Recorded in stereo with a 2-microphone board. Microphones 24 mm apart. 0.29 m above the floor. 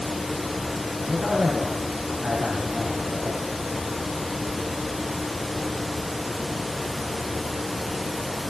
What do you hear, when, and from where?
1.0 s a man speaking: 75° right (ahead or behind), 4 m